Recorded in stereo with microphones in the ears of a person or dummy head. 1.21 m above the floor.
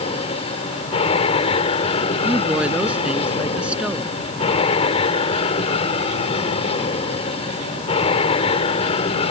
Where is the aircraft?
35° left (ahead or behind).